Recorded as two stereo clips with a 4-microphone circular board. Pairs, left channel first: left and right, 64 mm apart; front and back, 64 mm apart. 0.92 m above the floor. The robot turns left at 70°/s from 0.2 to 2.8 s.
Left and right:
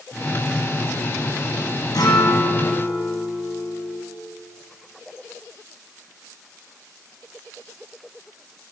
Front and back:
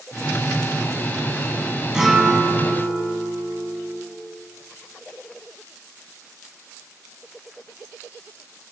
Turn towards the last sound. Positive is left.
turn(degrees=45)